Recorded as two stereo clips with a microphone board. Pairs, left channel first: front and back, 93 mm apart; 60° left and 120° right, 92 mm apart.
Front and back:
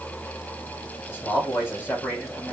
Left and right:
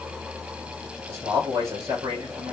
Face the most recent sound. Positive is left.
turn(degrees=-65)